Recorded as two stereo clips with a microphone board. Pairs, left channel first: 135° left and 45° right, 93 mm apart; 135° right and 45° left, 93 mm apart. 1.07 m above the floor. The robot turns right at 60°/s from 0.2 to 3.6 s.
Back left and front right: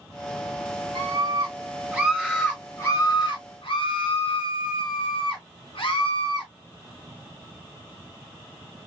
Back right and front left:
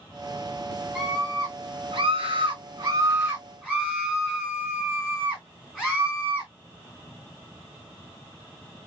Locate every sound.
0.9 s a scream: 35° right, 2.5 m; by 6.5 s 125° left, 2.5 m